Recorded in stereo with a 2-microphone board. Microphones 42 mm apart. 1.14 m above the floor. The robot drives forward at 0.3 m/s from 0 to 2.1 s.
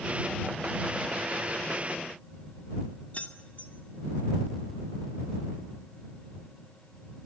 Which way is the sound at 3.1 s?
40° left (ahead or behind).